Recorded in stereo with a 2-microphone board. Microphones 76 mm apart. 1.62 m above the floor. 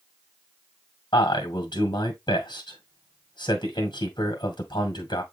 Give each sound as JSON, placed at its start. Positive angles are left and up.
{"t": 1.1, "sound": "a man speaking", "side_deg": 75, "distance_m": 1.8}